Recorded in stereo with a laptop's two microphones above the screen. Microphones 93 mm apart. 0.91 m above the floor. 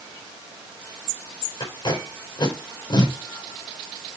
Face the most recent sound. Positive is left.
turn(degrees=55)  # may be behind; listen again after turning